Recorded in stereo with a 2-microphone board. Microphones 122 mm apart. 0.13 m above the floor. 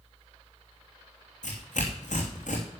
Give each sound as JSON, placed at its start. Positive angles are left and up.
{"t": 1.4, "sound": "tearing paper", "side_deg": 80, "distance_m": 3.0}